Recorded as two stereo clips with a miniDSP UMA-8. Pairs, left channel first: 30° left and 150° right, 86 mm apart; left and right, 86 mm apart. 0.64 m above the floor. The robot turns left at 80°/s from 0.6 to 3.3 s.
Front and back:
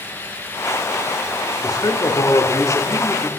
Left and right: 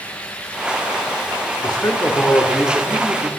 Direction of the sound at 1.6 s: 75° left.